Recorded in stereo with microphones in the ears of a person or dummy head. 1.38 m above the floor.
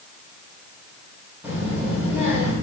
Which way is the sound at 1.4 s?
15° right (ahead or behind).